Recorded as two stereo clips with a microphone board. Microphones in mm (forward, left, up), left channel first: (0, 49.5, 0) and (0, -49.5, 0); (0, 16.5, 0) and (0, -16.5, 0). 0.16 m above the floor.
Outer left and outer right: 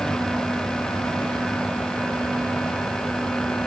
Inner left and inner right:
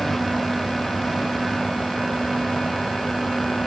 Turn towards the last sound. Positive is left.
No sound to turn to.